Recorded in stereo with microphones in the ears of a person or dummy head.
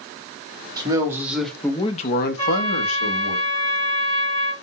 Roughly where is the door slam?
No door slam in this recording.